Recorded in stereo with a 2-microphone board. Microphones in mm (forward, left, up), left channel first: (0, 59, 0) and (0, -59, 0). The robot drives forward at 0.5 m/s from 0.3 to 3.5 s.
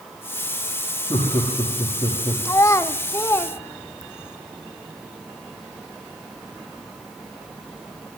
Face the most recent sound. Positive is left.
turn(degrees=20)  # may be behind; listen again after turning